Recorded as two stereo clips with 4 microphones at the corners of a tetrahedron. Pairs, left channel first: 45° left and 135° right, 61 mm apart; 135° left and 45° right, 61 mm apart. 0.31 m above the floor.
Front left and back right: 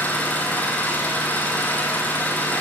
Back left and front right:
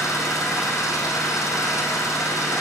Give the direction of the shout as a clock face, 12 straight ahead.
I don't hear a shout.